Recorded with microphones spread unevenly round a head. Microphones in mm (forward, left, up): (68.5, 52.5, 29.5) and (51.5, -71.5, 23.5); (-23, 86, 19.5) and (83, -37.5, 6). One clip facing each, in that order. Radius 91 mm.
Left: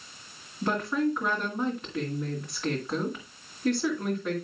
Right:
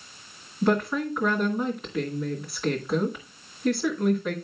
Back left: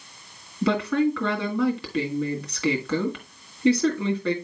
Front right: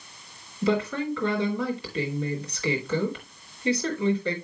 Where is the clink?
No clink in this recording.